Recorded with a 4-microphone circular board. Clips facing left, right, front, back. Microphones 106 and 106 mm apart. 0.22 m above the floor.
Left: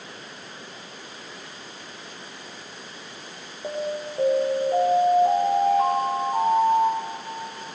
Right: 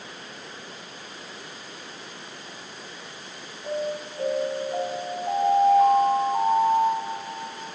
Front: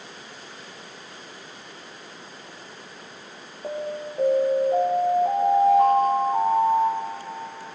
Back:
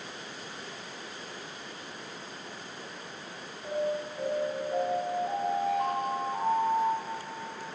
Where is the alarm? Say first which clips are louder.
Even, front 1 dB; 45° left, 8 m.